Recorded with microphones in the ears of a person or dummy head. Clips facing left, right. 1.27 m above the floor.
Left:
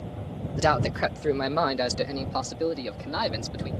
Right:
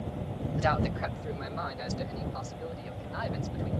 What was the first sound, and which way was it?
A man speaking, 60° left (ahead or behind).